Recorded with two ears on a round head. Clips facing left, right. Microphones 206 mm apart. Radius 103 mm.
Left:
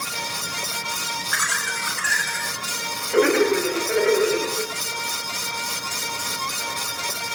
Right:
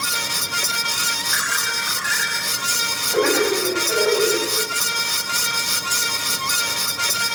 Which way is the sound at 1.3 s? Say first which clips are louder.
Right 1 dB; 40° left (ahead or behind).